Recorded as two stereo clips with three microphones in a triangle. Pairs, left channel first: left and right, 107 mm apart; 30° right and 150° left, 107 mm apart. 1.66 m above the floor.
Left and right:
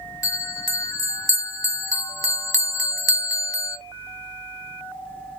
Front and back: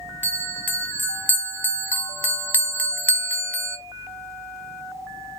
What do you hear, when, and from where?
0.2 s a bell: 40° left, 0.7 m